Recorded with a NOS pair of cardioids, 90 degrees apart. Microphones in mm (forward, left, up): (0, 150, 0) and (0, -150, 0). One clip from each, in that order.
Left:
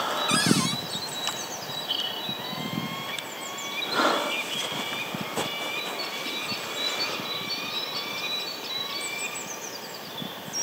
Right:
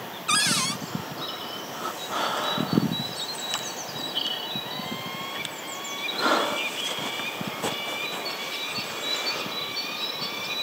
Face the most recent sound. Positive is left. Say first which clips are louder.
# right 4 dB
turn(degrees=-10)